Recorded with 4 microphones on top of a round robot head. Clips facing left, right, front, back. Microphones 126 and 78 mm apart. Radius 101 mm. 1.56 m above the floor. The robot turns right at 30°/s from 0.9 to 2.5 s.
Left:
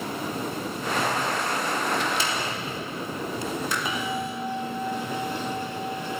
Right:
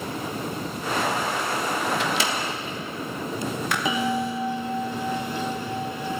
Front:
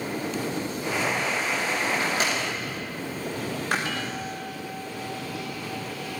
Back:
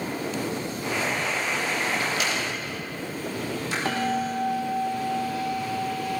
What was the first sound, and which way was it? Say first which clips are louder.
A microwave: right 2 dB, front 1 dB; 75° right.